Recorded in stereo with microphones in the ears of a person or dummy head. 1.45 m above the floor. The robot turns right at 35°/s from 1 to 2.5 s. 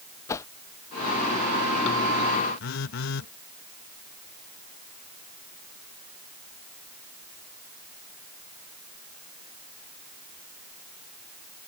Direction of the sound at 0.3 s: 25° left (ahead or behind).